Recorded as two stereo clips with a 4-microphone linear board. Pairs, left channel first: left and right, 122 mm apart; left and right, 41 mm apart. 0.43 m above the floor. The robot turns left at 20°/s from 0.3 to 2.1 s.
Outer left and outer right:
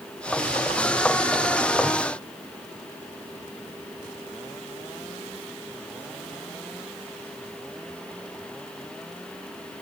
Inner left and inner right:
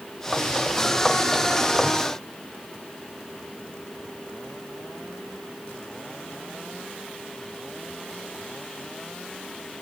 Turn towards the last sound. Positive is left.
No sound to turn to.